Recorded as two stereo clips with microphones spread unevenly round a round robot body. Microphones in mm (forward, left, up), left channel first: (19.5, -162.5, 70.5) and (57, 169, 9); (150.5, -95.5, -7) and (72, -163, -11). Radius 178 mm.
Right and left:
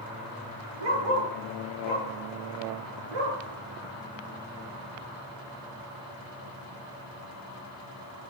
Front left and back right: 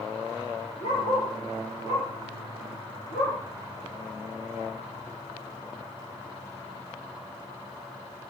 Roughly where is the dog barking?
Left.